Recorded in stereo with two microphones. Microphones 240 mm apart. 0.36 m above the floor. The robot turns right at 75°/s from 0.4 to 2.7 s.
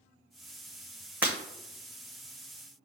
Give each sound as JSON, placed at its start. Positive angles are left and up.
{"t": 1.2, "sound": "breaking glass", "side_deg": -5, "distance_m": 0.9}